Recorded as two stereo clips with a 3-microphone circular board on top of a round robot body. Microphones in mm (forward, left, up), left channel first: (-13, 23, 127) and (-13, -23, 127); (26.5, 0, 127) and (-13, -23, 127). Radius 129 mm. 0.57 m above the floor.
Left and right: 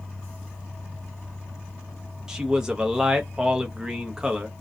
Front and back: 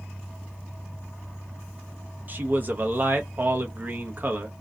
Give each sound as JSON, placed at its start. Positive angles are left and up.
{"t": 2.3, "sound": "a man speaking", "azimuth_deg": -160, "distance_m": 0.8}